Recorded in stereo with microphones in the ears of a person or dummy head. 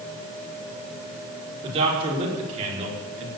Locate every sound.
1.6 s a man speaking: 35° right (ahead or behind), 5.5 m; by 3.3 s 40° right (ahead or behind), 4.5 m